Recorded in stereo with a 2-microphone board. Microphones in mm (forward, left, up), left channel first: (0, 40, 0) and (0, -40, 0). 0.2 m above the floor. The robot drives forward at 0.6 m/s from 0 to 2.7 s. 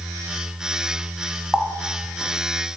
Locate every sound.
1.5 s a running tap: 10° right (ahead or behind), 0.7 m; by 2.3 s 5° right (ahead or behind), 1.0 m